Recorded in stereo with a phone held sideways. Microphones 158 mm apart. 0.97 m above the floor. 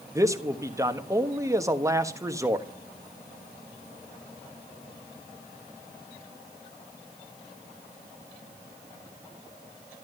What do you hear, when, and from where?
0.1 s a man speaking: 20° right (ahead or behind), 1.2 m